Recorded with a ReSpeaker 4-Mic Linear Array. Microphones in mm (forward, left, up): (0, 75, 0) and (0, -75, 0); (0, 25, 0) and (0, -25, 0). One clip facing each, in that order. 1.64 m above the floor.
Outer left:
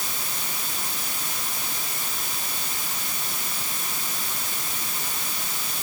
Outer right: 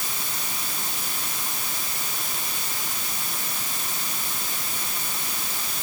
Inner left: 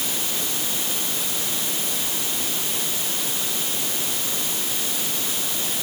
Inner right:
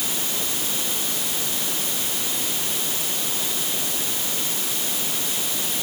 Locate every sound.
Only background noise.